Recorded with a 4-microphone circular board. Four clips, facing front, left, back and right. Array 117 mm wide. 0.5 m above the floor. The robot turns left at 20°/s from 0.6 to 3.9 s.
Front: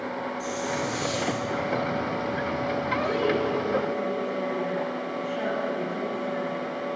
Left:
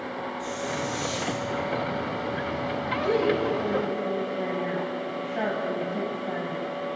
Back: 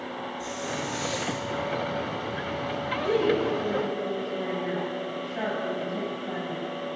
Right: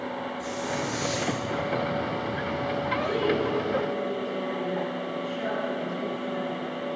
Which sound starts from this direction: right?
A hiss, at 0.4 s.